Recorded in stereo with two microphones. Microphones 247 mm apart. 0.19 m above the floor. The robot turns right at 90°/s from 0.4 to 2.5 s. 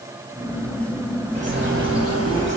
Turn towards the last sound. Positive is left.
turn(degrees=-50)